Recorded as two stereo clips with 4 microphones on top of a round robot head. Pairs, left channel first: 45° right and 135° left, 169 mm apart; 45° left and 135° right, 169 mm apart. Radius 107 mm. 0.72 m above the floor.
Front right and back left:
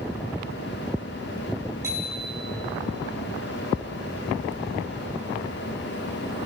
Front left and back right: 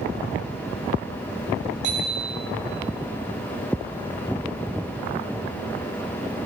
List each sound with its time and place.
1.8 s a bicycle bell: 150° right, 8.5 m